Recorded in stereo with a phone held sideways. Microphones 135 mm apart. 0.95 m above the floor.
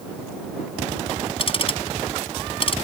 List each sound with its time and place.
1.4 s ticking: 40° left (ahead or behind)